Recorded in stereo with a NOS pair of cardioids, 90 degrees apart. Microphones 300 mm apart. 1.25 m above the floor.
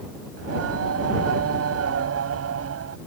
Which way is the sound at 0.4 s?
55° right.